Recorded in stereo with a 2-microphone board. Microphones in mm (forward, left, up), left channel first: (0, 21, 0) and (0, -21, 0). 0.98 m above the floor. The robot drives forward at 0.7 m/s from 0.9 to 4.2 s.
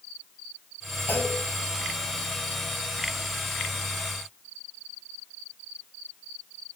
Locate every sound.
1.1 s a clunk: 80° left, 9 m